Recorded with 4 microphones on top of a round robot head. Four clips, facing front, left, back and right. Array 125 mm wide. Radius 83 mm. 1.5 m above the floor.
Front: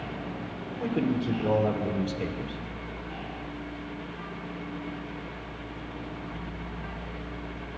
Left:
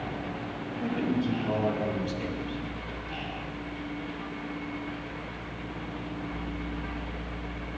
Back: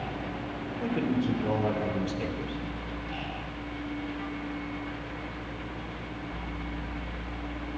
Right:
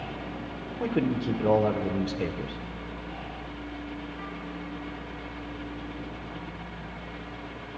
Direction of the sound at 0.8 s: 80° right.